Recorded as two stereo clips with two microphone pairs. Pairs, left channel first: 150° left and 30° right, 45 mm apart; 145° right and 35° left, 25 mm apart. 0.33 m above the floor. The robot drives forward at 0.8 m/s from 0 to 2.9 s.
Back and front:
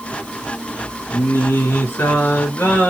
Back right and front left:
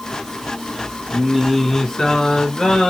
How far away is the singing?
About 0.6 m.